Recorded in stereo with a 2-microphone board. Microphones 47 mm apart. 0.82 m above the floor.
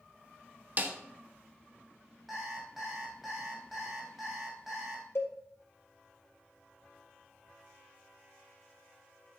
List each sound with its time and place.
0.8 s a snare drum: 40° right (ahead or behind), 1.0 m
2.3 s an alarm clock: 5° right (ahead or behind), 3 m
5.2 s a cowbell: 60° left (ahead or behind), 2 m